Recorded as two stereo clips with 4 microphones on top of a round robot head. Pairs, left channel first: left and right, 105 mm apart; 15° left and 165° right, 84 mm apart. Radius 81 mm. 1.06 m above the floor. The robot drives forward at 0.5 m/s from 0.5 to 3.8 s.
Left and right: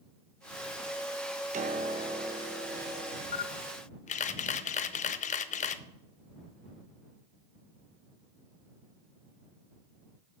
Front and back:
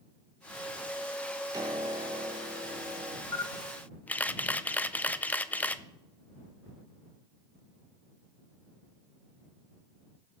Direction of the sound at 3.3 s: 60° left.